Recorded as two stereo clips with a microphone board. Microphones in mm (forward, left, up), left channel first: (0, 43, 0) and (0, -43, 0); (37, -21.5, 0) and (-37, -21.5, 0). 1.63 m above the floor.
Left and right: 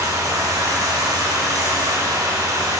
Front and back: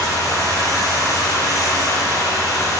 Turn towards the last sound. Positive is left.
turn(degrees=-40)